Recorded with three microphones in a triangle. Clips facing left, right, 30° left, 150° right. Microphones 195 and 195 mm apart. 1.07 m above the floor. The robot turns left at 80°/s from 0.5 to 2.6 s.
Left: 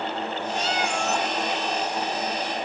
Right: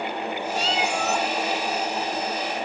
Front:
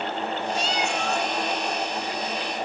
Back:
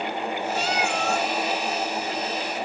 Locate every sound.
0.6 s a cat meowing: 135° right, 2 m; by 1.2 s 170° left, 2 m